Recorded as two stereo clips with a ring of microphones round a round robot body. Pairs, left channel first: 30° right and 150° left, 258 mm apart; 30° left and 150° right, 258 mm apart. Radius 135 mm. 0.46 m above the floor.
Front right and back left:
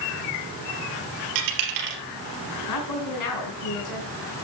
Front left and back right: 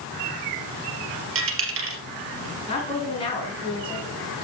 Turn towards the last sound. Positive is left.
turn(degrees=-40)